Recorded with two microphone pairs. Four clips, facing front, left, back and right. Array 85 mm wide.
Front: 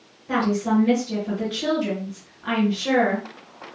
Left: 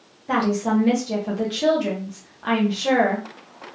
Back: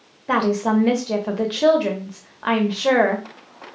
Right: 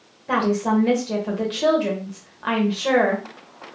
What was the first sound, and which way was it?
A woman speaking, 170° right.